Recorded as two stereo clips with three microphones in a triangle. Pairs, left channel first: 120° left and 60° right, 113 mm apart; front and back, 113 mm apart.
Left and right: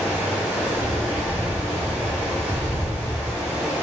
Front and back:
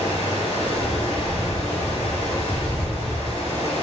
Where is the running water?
15° left, 1.0 m.